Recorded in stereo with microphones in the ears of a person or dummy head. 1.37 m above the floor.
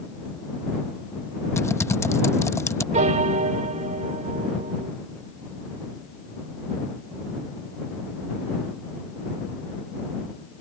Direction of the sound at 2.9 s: 35° right (ahead or behind).